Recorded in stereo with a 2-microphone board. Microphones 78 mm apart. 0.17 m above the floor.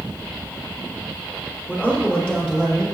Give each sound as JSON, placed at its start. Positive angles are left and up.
{"t": 1.7, "sound": "a man speaking", "side_deg": 20, "distance_m": 4.5}